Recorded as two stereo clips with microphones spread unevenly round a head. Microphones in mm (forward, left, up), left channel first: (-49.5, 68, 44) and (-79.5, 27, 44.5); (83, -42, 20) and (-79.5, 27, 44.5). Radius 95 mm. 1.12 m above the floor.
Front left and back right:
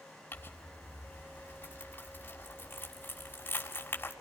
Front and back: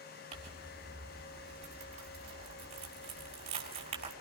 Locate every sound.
0.3 s crumpling: 100° left, 6 m